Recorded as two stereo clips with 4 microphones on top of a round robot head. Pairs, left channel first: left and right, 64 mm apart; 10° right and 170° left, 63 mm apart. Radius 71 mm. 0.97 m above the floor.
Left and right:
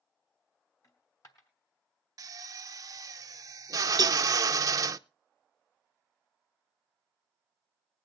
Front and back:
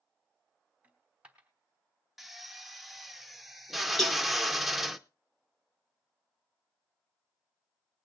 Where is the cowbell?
100° right, 1.0 m.